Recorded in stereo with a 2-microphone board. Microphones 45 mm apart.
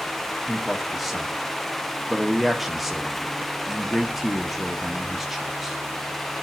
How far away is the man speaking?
About 1.1 m.